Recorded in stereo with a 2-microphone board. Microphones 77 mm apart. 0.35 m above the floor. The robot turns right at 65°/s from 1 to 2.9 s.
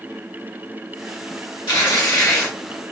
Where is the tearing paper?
100° left, 1.7 m; by 2.5 s 155° left, 1.7 m.